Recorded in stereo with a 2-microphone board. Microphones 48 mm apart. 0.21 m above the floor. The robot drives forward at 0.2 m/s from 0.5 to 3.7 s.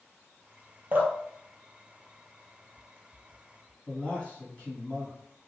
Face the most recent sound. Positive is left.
turn(degrees=20)  # may be behind; listen again after turning